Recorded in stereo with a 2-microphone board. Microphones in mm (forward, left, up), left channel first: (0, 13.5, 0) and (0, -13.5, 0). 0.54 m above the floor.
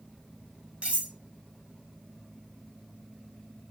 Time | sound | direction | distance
0.8 | cutlery clinking | 45° right (ahead or behind) | 1.1 m